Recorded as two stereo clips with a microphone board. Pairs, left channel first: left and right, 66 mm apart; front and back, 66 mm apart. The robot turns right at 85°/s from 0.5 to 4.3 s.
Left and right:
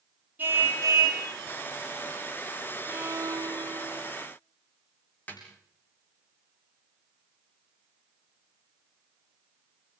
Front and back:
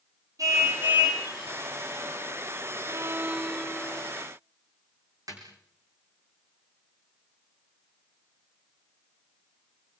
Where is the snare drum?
155° left, 7 m.